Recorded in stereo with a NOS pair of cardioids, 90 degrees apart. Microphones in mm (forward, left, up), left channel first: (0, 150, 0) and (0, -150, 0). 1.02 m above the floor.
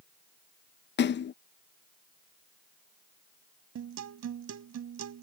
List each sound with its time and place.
1.0 s a splash: 40° left
3.8 s a guitar: 65° right